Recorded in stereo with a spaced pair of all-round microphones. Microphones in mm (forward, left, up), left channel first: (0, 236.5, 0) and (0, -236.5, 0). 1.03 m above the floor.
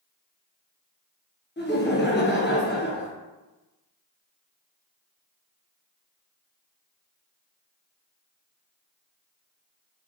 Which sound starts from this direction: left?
Laughter, at 1.6 s.